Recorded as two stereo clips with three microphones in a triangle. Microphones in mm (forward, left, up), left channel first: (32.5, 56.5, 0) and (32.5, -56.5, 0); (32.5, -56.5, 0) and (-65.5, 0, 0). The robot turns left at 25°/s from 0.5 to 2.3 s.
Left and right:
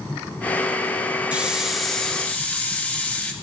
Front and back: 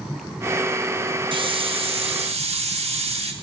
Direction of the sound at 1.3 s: 170° right.